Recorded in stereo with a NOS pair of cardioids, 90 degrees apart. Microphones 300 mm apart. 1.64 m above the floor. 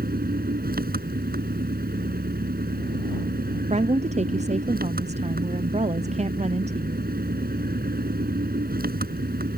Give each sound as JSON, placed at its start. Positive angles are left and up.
{"t": 0.0, "sound": "an engine running", "azimuth_deg": -30}
{"t": 3.7, "sound": "a woman speaking", "azimuth_deg": -25}